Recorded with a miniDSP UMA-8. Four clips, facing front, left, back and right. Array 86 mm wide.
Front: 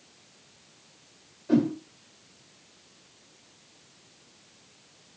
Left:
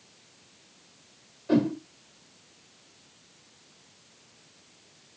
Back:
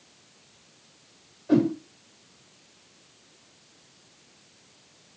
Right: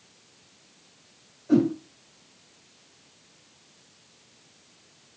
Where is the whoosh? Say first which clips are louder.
Right 3 dB, back 2 dB; 80° left, 1.5 m.